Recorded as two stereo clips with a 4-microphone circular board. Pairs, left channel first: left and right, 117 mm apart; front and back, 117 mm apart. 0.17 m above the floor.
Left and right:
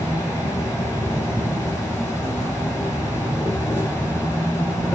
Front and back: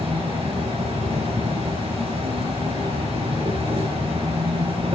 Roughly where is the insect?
Behind left.